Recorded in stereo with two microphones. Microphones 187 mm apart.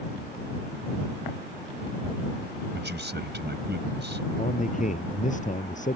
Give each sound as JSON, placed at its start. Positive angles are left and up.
{"t": 2.7, "sound": "a man speaking", "side_deg": -65}
{"t": 4.4, "sound": "a man speaking", "side_deg": 40}